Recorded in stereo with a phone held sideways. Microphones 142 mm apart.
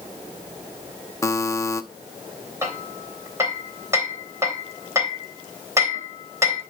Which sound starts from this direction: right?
Hammering, at 2.6 s.